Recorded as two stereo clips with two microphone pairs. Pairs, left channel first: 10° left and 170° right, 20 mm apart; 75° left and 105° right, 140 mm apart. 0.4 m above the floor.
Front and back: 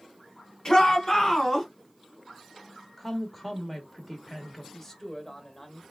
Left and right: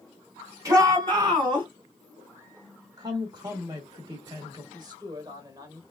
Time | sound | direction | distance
0.7 | a shout | 40° right | 2.5 m
3.0 | a woman speaking | 80° right | 1.0 m
4.7 | a man speaking | 55° right | 1.1 m